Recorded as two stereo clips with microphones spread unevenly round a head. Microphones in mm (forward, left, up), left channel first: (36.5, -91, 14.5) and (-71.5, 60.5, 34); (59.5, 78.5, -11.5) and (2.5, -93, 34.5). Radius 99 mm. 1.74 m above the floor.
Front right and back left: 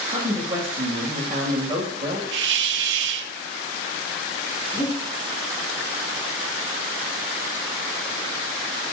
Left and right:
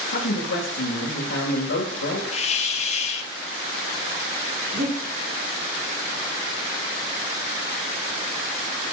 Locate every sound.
0.1 s a man speaking: 55° left, 2.5 m
2.3 s a hiss: 135° left, 0.7 m
4.7 s breathing: 100° right, 5.5 m